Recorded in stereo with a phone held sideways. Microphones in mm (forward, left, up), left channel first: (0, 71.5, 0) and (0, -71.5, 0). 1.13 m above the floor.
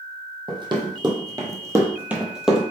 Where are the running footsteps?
30° right (ahead or behind), 1.7 m; by 2.6 s centre (ahead or behind), 1.4 m.